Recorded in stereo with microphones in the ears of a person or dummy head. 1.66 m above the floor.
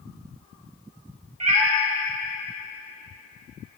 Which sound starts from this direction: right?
A cat meowing, at 1.4 s.